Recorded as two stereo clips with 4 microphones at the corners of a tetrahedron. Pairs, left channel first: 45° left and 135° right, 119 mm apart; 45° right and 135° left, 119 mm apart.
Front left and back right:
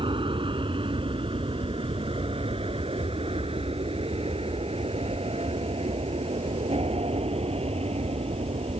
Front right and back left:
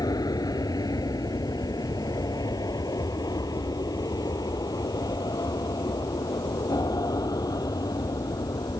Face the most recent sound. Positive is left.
turn(degrees=-105)